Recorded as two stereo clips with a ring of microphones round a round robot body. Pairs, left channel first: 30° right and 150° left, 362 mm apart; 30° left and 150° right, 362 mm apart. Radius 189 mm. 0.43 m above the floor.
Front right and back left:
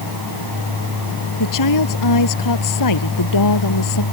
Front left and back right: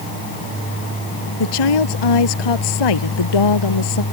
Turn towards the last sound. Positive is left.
turn(degrees=10)